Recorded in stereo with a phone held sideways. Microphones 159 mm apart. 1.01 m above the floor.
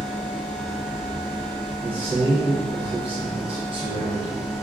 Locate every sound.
0.0 s a machine running: centre (ahead or behind), 1.1 m
1.8 s a man speaking: 35° right (ahead or behind), 0.9 m